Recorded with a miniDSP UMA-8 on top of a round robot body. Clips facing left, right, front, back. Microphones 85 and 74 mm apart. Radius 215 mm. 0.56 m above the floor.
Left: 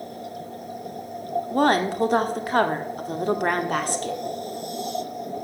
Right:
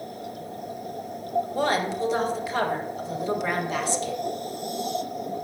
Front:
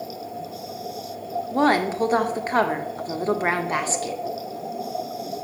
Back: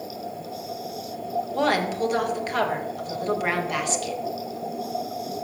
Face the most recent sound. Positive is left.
turn(degrees=55)